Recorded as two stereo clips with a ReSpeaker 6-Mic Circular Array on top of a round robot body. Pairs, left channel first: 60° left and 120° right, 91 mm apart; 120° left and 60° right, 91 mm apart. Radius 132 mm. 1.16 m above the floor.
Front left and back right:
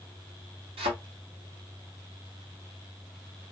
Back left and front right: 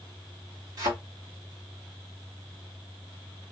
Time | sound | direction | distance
0.8 | a thud | 110° right | 1.9 m